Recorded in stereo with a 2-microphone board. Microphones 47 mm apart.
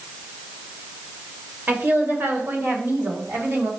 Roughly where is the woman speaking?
Right.